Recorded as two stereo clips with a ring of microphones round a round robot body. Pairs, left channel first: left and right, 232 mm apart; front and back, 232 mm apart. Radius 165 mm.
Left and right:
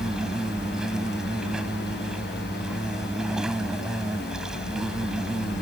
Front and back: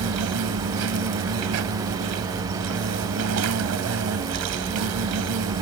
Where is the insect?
Straight behind.